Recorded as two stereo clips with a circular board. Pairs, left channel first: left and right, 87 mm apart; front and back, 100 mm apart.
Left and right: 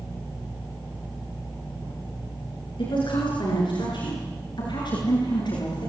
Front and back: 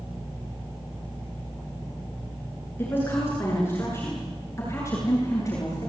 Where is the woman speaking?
70° left, 9 m; by 5.9 s 60° left, 10 m.